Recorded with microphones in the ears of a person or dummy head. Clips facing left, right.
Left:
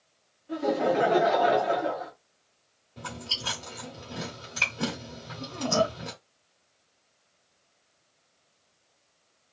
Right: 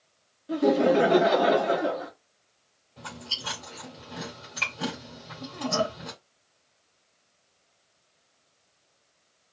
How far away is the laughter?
About 0.6 m.